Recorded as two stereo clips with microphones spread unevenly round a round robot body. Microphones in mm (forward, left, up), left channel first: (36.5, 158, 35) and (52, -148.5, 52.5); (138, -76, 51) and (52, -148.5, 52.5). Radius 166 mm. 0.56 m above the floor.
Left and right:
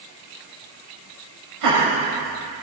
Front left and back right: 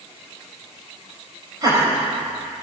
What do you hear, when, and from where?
1.6 s laughter: 90° right, 3 m; by 2.6 s 80° right, 4 m